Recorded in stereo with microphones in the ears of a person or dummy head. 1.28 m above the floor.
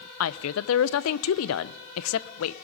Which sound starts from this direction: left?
A woman speaking, at 0.2 s.